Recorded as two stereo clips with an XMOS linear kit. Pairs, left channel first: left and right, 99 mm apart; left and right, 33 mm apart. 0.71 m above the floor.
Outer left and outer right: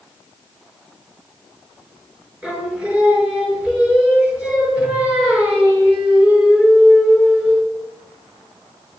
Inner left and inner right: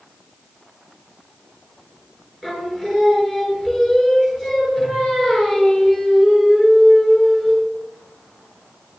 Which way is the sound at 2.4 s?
10° right (ahead or behind).